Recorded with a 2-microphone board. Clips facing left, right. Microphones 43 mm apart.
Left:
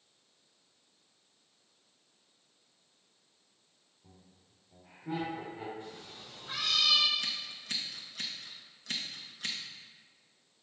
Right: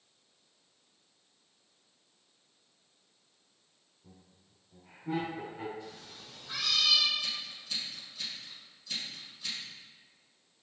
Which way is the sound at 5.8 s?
40° left (ahead or behind).